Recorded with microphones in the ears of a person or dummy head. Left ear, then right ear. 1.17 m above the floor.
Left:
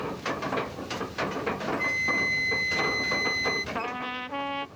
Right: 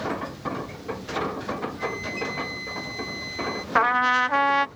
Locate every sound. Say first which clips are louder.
1.8 s a flute: left 4 dB; 30° left (ahead or behind)
3.8 s a trumpet: right 13 dB; 50° right (ahead or behind)